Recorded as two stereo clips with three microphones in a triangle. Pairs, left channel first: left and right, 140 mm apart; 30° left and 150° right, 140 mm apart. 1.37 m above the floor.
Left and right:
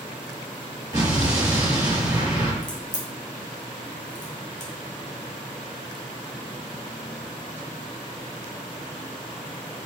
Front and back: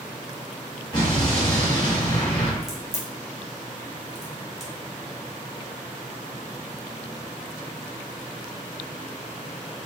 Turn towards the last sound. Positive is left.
turn(degrees=125)